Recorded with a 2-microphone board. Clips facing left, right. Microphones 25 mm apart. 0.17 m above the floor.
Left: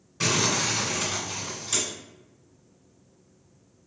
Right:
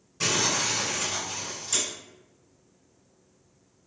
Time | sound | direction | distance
0.2 | crumpling | 20° left (ahead or behind) | 1.8 m